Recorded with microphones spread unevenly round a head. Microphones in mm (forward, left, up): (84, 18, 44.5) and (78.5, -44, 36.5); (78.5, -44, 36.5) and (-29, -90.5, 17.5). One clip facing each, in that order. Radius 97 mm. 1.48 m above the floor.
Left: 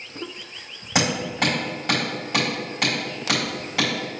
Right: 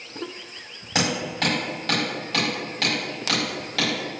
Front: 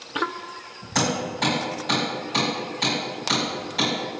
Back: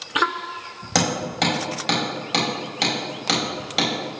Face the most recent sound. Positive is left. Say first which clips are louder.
# left 2 dB, back 2 dB
turn(degrees=165)